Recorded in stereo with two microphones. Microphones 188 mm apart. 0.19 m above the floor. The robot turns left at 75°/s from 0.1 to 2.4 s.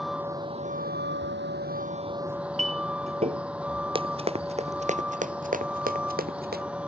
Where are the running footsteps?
30° right (ahead or behind); by 6.6 s 60° right (ahead or behind).